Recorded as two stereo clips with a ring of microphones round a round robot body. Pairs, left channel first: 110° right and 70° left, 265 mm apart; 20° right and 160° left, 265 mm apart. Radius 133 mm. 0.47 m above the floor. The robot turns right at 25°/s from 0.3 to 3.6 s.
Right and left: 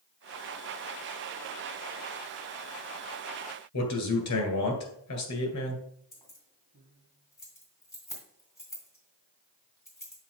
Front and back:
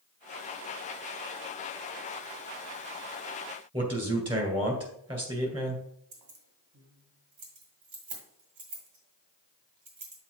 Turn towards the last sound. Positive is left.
turn(degrees=165)